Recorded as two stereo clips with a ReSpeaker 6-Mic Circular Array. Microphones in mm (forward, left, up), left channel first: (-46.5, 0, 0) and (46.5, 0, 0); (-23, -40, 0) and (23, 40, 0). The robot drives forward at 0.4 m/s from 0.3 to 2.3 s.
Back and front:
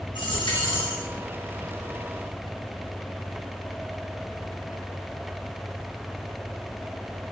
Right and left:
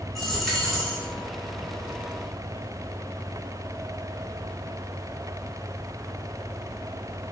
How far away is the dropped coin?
About 4 m.